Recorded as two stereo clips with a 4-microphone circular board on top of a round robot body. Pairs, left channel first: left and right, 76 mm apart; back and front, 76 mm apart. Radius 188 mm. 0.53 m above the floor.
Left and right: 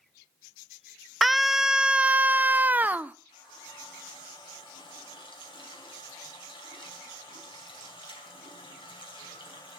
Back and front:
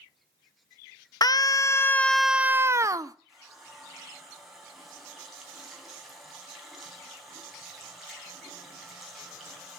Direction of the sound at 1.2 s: Straight behind.